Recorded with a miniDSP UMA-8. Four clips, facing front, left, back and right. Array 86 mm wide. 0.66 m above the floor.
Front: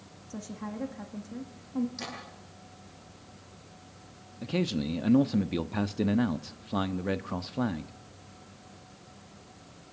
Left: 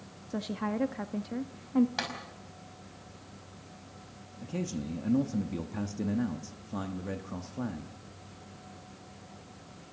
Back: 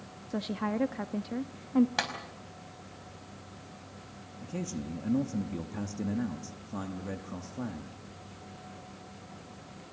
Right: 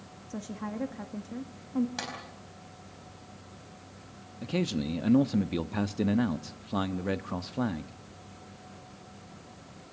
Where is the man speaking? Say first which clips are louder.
Right 5 dB, front 7 dB; 45° right, 0.7 m.